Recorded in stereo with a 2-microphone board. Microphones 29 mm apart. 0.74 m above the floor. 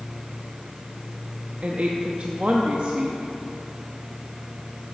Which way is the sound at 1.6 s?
45° right (ahead or behind).